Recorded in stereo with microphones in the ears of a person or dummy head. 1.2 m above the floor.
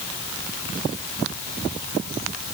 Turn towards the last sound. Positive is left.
No sound to turn to.